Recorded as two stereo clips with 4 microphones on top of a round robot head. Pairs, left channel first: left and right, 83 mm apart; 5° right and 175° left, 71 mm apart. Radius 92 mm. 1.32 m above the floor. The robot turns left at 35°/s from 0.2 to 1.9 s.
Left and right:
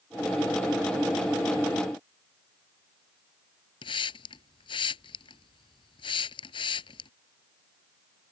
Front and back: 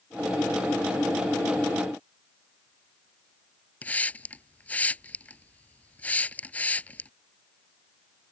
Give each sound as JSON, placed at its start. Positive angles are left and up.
{"t": 3.8, "sound": "a hiss", "azimuth_deg": 65}